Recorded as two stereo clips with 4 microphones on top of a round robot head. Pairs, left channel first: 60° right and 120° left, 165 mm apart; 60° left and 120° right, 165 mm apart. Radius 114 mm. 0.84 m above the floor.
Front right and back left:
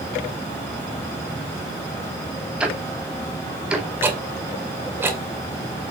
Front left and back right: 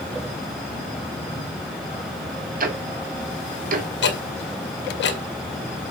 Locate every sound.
2.6 s ticking: 155° right, 2.5 m
4.0 s ticking: 45° left, 2.5 m